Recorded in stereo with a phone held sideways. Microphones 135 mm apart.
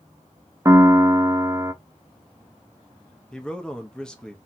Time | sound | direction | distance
0.7 | a piano | 25° right (ahead or behind) | 0.7 m
3.3 | a man speaking | 5° left (ahead or behind) | 1.1 m